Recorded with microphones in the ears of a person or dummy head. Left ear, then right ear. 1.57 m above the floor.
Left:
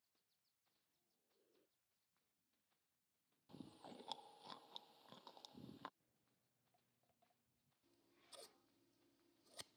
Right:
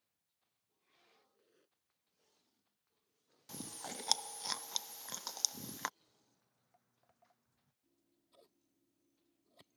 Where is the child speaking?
No child speaking in this recording.